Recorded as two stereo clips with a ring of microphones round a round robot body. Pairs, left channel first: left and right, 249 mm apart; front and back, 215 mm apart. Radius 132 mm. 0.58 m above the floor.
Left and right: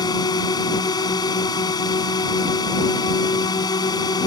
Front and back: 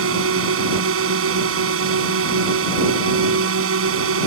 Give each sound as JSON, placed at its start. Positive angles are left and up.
{"t": 0.0, "sound": "a drone", "azimuth_deg": 165}